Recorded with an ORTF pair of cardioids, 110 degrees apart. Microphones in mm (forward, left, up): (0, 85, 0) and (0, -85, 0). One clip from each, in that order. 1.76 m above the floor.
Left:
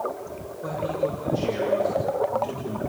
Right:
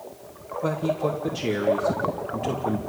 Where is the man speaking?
45° right, 2.5 m.